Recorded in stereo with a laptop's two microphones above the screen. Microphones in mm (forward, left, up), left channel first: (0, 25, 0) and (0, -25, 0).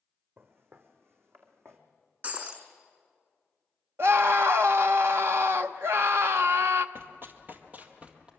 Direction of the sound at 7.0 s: 60° right (ahead or behind).